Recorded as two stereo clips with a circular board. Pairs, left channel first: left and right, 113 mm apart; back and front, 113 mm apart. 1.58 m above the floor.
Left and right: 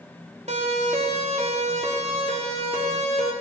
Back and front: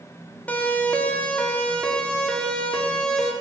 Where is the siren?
105° right, 4.5 m; by 3.3 s 95° right, 7 m.